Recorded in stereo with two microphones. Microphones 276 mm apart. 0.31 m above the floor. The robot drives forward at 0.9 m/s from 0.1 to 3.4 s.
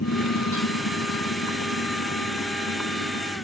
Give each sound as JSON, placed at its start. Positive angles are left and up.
{"t": 0.0, "sound": "a motorcycle", "side_deg": 55}